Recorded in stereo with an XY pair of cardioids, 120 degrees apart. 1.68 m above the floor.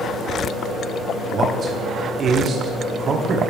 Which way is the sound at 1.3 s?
45° right.